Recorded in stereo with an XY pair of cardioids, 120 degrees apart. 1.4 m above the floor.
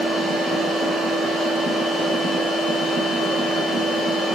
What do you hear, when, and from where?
0.0 s a machine running: 65° right, 1.2 m